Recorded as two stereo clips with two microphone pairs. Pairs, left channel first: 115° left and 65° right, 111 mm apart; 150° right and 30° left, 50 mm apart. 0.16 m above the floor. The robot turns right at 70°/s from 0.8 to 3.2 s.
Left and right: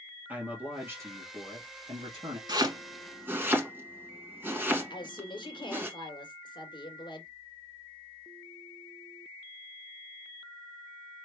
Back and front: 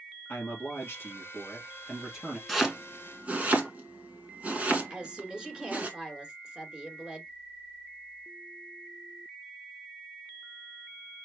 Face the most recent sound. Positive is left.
turn(degrees=95)